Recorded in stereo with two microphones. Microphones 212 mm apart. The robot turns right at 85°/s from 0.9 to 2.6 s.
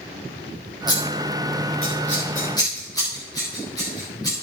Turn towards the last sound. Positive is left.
turn(degrees=15)  # may be behind; listen again after turning